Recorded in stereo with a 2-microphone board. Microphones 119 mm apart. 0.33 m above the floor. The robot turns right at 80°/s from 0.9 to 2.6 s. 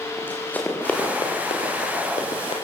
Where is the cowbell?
I don't hear a cowbell.